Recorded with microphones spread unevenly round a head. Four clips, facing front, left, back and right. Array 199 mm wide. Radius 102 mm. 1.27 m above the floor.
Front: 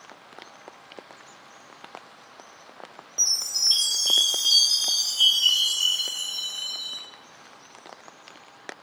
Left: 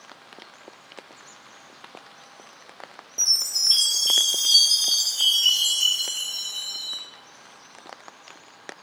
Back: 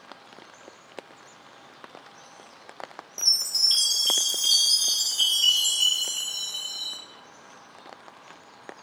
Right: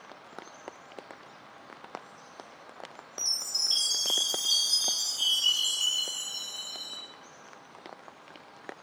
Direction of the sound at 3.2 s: 150° left.